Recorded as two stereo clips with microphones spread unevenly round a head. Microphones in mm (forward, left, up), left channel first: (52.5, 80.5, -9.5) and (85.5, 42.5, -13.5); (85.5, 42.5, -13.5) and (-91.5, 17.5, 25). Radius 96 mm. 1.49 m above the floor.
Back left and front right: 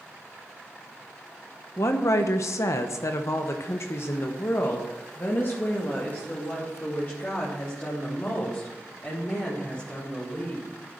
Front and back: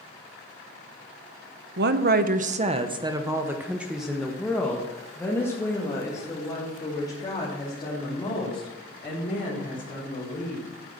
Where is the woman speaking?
175° left, 0.8 m; by 10.7 s 75° left, 4.5 m.